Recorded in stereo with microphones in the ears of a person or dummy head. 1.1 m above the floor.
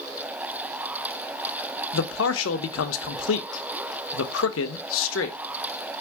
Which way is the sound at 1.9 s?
75° left (ahead or behind).